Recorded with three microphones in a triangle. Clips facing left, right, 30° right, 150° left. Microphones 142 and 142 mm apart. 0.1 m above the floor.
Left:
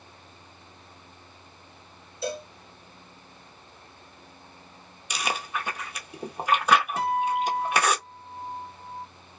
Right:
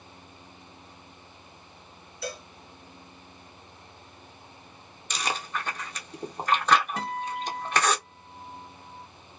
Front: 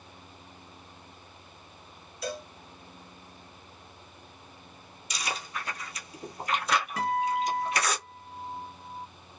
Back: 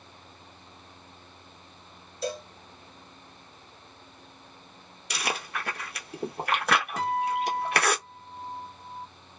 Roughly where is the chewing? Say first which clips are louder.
Left 1 dB, back 3 dB; behind.